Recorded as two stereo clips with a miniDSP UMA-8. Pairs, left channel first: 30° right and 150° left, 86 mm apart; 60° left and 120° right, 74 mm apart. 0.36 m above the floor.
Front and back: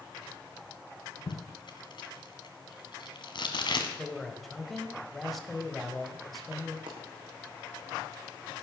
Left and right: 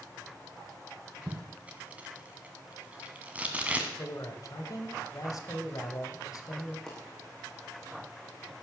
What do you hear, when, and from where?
1.3 s tape being pulled: 50° right, 1.6 m
4.0 s a man speaking: 60° left, 1.6 m
6.9 s a dropped coin: 140° left, 4.5 m